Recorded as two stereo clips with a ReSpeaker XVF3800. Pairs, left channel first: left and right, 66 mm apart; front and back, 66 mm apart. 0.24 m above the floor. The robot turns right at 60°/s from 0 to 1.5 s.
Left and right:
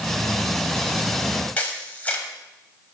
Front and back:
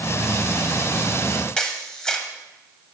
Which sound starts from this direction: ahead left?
A camera shutter, at 1.6 s.